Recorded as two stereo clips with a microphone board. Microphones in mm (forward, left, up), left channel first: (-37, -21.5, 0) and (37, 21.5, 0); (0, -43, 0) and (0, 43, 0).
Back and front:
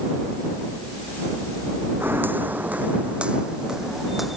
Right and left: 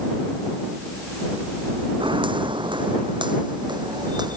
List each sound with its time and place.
2.0 s footsteps: 95° left; by 4.4 s 120° left